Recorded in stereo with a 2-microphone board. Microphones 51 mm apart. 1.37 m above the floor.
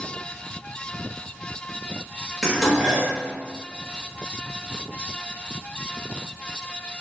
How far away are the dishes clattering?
About 1.2 m.